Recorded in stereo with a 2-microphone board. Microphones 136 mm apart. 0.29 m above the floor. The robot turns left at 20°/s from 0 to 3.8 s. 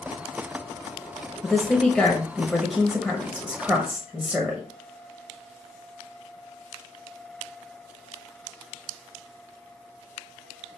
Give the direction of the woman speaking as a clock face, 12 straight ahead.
11 o'clock.